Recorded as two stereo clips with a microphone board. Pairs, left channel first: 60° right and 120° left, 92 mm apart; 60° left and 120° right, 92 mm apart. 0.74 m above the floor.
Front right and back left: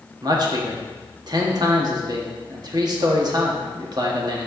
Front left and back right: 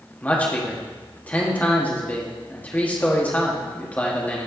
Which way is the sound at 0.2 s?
130° left.